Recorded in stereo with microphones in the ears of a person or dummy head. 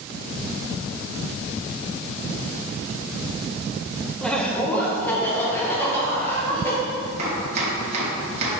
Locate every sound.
4.2 s laughter: 5° left (ahead or behind), 1.0 m; by 6.8 s 10° left (ahead or behind), 3 m
7.2 s chopping: 35° right (ahead or behind), 1.9 m